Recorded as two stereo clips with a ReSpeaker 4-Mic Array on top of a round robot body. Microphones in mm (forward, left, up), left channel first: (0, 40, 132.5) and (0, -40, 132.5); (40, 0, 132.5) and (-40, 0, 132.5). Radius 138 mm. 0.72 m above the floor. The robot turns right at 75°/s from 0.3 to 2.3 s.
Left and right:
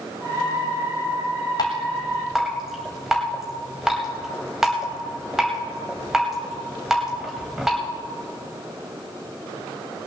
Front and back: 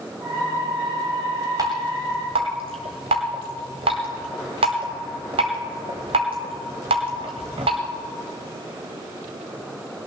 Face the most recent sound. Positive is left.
turn(degrees=-175)